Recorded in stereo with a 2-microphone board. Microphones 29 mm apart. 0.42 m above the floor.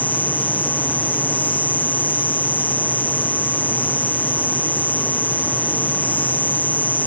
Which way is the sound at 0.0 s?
70° left (ahead or behind).